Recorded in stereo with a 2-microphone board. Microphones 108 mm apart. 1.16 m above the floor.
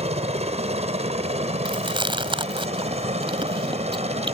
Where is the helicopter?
75° right (ahead or behind).